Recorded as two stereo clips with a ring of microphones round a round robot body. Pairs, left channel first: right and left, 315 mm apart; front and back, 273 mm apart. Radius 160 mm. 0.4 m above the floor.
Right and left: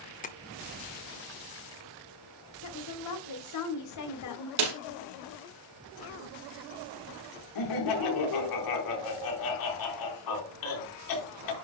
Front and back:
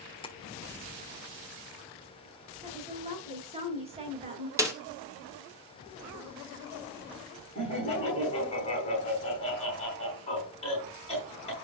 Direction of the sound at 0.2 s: 55° right.